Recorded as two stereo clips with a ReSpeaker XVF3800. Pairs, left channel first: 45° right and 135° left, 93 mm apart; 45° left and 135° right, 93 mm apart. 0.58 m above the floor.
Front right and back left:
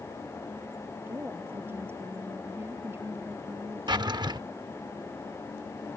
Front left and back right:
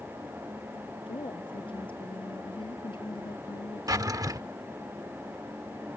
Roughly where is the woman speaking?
Left.